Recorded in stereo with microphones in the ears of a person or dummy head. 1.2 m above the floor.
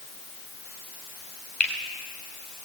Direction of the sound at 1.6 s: 10° left (ahead or behind).